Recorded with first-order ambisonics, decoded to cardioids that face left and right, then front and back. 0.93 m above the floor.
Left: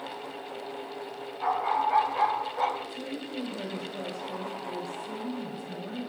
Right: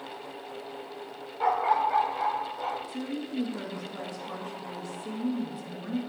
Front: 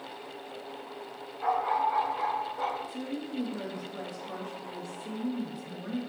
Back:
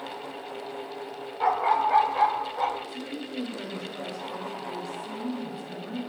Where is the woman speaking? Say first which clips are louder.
Right 1 dB, back 1 dB; 75° right, 1.9 m.